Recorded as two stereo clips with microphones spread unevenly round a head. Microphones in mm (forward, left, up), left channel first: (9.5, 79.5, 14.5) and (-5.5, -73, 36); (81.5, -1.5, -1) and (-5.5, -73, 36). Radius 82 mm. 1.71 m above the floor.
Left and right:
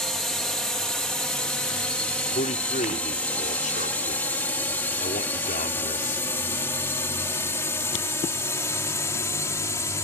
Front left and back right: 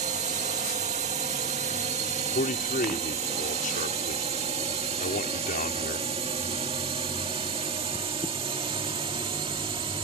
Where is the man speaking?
35° left.